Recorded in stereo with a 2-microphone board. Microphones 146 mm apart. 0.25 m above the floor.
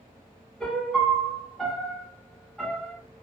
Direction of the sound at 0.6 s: 5° left (ahead or behind).